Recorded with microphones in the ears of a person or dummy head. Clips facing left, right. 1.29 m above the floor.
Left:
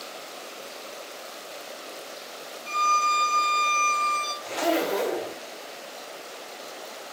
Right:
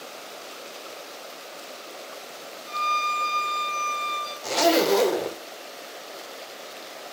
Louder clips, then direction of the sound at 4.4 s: Right 5 dB; 60° right (ahead or behind).